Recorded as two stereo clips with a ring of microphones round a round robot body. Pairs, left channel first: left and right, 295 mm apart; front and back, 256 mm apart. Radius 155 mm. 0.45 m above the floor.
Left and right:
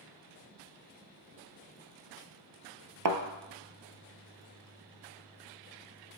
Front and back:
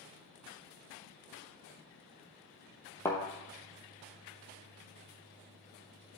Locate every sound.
3.0 s a thud: 80° right, 0.7 m